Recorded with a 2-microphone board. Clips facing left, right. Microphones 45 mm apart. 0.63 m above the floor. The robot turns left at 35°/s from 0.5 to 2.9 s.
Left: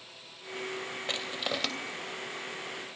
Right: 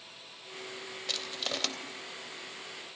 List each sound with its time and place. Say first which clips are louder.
1.1 s crushing: left 2 dB; 25° left (ahead or behind), 2.5 m; by 1.7 s 5° left (ahead or behind), 2.5 m